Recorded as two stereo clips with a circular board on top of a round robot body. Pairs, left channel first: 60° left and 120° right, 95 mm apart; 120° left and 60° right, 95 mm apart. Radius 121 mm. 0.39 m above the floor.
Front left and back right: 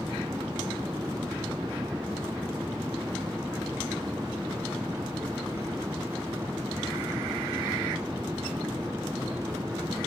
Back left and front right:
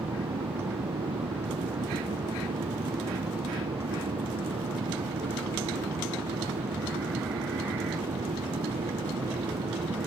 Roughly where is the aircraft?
Ahead right.